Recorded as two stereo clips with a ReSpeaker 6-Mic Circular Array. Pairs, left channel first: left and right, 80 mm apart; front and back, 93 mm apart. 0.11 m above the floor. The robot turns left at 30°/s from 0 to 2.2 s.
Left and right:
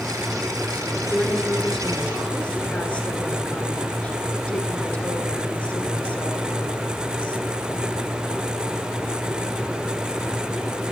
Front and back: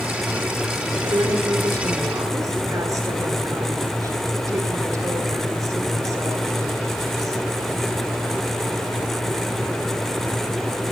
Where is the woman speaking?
170° right, 2.0 m; by 7.5 s 155° left, 2.0 m.